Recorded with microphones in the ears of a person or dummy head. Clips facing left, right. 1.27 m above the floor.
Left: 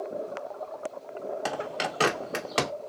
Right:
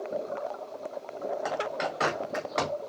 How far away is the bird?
About 0.6 m.